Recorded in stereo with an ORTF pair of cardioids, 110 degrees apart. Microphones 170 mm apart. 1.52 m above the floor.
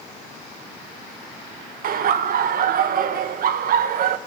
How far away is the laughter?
About 1.6 m.